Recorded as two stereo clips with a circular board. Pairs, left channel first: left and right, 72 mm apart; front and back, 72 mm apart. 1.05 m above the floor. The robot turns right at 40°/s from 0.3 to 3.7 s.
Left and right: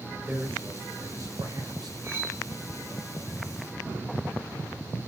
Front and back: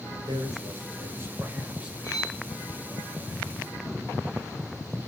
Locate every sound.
0.3 s a man speaking: 165° right, 3.5 m; by 3.0 s 55° right, 3.5 m
2.0 s cutlery clinking: 40° right, 6.5 m; by 2.4 s 25° right, 6.5 m